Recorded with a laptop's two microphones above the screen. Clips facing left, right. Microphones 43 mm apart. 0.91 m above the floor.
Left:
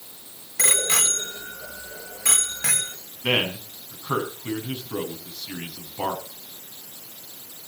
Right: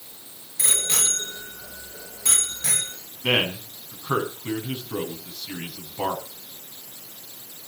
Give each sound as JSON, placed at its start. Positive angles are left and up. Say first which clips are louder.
{"t": 0.6, "sound": "a bicycle bell", "louder": "left 4 dB", "side_deg": 70, "distance_m": 2.5}
{"t": 3.2, "sound": "a man speaking", "louder": "right 1 dB", "side_deg": 0, "distance_m": 7.0}